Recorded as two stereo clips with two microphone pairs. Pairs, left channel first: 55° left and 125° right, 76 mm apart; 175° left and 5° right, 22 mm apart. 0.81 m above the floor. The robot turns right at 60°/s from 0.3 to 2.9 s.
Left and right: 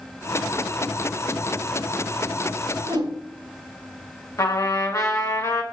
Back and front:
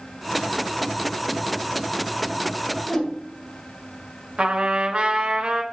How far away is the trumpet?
About 1.0 m.